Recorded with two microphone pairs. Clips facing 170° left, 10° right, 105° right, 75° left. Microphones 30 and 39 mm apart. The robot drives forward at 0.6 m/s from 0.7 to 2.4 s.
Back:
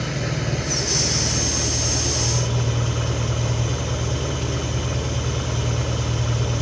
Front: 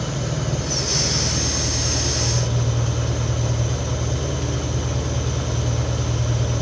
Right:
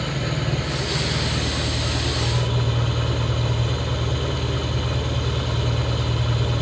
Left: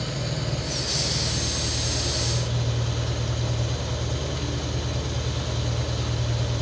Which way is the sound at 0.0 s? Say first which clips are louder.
Even, right 4 dB; 155° right.